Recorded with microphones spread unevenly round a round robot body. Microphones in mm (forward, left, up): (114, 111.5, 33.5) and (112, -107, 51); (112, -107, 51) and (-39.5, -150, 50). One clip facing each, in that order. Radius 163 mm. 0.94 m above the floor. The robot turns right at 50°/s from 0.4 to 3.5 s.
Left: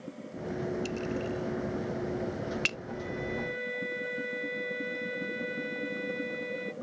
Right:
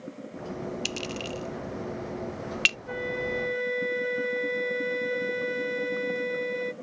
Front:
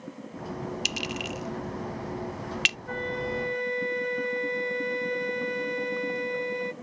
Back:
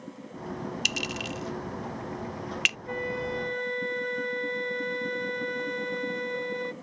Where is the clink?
130° right; by 2.8 s 35° right.